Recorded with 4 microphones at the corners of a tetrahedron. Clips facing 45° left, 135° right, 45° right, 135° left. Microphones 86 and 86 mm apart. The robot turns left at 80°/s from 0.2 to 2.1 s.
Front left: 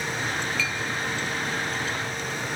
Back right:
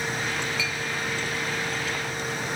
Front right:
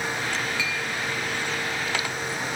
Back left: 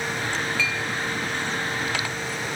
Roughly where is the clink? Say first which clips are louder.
Front left 1 dB, back left 2 dB; right.